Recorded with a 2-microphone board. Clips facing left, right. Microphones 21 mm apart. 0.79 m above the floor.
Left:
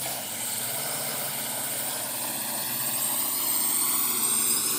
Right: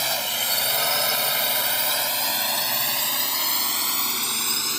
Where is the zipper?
No zipper in this recording.